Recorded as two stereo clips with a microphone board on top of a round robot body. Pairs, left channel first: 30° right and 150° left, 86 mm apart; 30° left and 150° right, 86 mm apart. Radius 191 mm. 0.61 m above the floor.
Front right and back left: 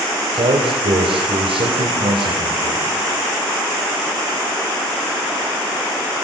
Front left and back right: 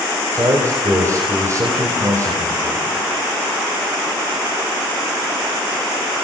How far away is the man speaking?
About 5 m.